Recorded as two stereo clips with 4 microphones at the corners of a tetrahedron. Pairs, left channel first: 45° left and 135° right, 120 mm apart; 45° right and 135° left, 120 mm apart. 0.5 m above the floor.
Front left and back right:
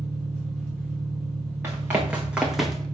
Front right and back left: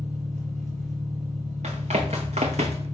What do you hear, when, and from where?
0.0 s an engine running: 125° left, 4 m
1.6 s running footsteps: 150° left, 2 m; by 2.9 s 125° left, 0.9 m